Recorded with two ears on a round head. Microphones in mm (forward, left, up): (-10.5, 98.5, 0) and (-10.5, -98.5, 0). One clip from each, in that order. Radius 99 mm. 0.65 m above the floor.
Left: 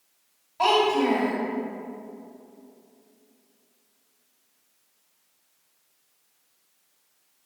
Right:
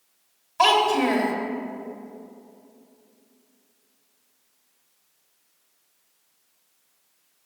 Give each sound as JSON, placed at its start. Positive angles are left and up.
{"t": 0.6, "sound": "a child speaking", "side_deg": -60, "distance_m": 1.2}